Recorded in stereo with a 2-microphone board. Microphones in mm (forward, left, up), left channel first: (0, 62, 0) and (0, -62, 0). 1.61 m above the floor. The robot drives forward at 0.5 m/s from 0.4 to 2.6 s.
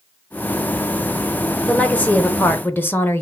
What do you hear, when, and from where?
1.6 s a woman speaking: 10° left (ahead or behind), 0.9 m; by 3.2 s 15° left (ahead or behind), 0.5 m